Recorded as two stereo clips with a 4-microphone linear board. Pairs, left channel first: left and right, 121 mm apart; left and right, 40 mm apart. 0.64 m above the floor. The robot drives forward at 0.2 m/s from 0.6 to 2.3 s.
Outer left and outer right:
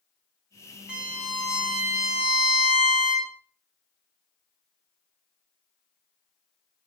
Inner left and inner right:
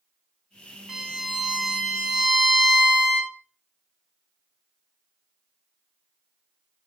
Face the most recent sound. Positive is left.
turn(degrees=-5)  # may be behind; listen again after turning